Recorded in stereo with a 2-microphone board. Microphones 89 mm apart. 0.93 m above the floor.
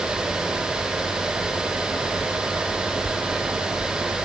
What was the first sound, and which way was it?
Only background noise.